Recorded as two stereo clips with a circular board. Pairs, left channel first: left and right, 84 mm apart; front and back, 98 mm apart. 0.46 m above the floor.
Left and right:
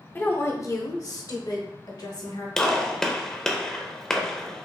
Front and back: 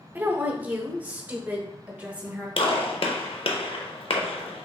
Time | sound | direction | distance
0.1 | a woman speaking | 125° left | 0.8 m
2.6 | a gunshot | 5° left | 0.6 m